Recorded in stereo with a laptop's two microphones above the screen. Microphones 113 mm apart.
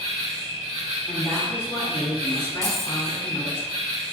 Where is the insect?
60° right (ahead or behind), 1.4 m.